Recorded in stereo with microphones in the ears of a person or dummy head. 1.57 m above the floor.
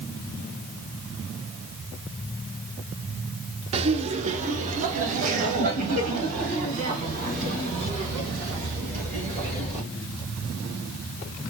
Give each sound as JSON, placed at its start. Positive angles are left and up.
{"t": 3.7, "sound": "laughter", "side_deg": -30, "distance_m": 0.6}